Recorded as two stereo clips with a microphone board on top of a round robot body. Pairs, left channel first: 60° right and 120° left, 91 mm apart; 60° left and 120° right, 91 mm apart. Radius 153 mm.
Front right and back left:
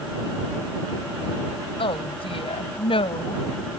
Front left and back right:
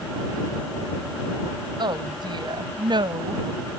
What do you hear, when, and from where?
1.8 s a woman speaking: 80° right